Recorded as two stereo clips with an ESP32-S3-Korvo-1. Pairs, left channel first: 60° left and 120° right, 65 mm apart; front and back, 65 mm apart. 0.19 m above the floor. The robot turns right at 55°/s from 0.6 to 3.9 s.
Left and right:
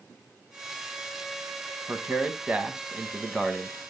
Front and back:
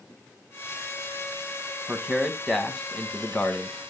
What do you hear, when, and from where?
1.9 s a man speaking: 110° right, 1.2 m; by 3.8 s 10° right, 1.2 m